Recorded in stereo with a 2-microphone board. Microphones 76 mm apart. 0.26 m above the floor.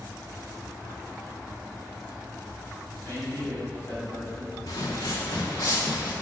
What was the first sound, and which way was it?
A man speaking, 35° left (ahead or behind).